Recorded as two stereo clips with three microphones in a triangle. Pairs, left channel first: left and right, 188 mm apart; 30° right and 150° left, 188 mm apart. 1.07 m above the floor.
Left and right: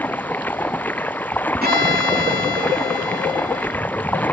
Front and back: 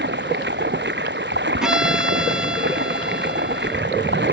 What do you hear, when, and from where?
0.0 s running water: 170° left
1.6 s a violin: 125° right